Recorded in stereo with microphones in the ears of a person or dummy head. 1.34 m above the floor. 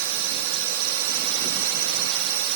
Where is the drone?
75° right (ahead or behind).